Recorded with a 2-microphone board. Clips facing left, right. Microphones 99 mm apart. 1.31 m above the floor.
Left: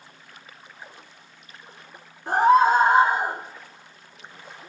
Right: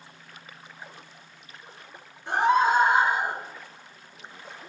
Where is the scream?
40° left (ahead or behind), 0.8 m.